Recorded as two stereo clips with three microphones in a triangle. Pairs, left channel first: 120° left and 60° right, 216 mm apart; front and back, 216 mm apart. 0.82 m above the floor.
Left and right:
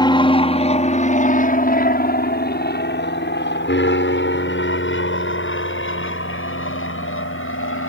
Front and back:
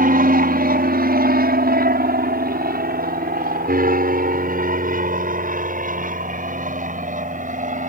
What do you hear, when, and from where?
0.0 s an aircraft: 175° left; by 7.9 s 130° left